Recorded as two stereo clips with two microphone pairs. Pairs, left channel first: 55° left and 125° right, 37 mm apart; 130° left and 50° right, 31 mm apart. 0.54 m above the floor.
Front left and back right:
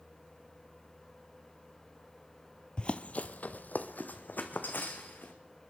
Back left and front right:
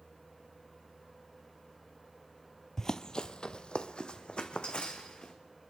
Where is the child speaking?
No child speaking in this recording.